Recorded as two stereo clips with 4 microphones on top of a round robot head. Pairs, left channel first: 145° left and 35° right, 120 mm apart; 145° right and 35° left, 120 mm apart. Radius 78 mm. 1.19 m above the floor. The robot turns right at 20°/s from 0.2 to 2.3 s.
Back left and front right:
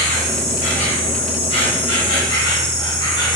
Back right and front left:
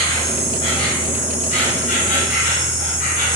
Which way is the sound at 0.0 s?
160° left.